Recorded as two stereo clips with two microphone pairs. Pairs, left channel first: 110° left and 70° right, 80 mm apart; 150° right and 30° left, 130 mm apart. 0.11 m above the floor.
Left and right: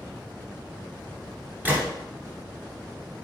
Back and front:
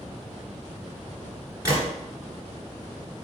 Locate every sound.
1.6 s a gunshot: 20° right, 1.6 m